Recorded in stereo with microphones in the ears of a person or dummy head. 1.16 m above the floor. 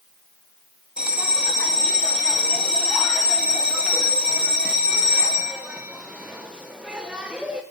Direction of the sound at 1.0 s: 5° right (ahead or behind).